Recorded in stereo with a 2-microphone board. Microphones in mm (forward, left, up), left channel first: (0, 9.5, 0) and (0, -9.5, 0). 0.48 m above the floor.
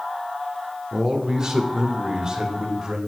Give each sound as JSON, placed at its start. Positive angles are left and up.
{"t": 0.9, "sound": "a man speaking", "side_deg": -25, "distance_m": 1.0}